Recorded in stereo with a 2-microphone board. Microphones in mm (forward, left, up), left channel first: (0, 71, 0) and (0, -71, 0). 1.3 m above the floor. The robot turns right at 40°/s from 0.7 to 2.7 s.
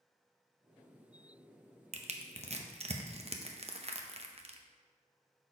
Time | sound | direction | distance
1.9 | crushing | 50° right (ahead or behind) | 0.6 m